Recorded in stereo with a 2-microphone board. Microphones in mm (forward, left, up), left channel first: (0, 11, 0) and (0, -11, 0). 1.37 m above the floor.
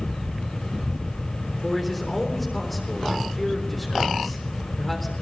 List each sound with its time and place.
1.6 s a man speaking: 5° left (ahead or behind), 3.5 m